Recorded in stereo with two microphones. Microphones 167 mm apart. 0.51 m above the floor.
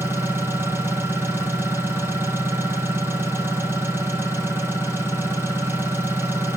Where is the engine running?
15° right (ahead or behind), 4.5 m.